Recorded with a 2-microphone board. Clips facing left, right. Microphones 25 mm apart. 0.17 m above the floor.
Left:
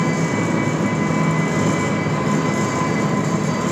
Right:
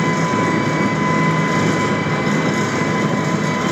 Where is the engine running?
45° right (ahead or behind), 1.3 m.